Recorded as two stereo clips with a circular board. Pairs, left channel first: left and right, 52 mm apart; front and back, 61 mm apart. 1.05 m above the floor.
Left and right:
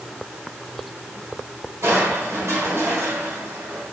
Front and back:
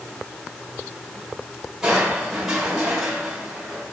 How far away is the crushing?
About 4 m.